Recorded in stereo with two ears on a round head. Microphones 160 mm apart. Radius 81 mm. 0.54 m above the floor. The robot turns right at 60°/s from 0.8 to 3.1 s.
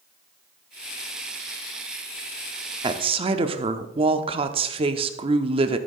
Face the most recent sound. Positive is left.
turn(degrees=-30)  # may be behind; listen again after turning